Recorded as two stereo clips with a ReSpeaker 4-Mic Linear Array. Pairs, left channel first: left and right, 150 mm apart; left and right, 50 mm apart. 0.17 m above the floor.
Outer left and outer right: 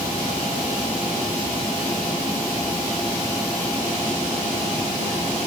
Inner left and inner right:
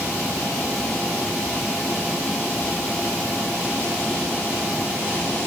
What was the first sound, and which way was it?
Only background noise.